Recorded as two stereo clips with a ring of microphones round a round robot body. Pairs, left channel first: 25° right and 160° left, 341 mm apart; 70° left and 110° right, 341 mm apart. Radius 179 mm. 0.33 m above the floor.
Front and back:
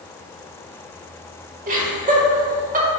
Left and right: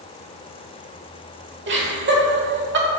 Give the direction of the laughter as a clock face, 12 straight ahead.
5 o'clock.